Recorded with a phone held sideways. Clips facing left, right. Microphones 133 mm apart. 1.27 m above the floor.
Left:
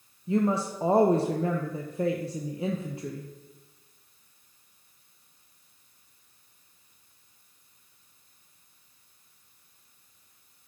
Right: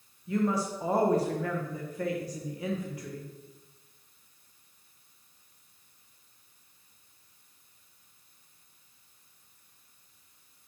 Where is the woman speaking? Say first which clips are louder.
Left 3 dB; 25° left (ahead or behind), 0.8 m.